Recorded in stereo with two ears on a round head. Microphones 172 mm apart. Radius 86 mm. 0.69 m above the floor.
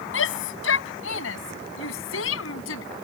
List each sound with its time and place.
0.1 s a shout: 75° left (ahead or behind); by 2.8 s 80° left